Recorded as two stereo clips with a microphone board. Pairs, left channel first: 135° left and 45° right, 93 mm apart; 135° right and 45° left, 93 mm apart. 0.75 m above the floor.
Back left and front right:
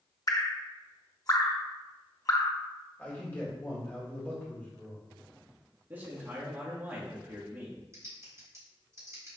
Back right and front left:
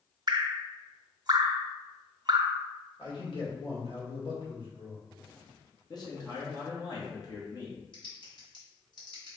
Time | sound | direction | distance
0.3 | dripping | 85° left | 0.5 m
3.0 | a man speaking | 155° right | 1.7 m
5.9 | a man speaking | 110° right | 1.3 m
7.9 | typing on a keyboard | 100° right | 1.7 m